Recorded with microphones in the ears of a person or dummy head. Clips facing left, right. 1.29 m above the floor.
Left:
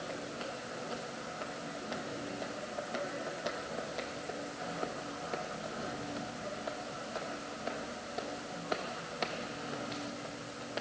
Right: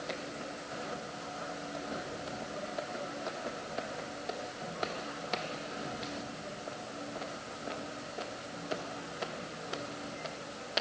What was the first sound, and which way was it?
Only background noise.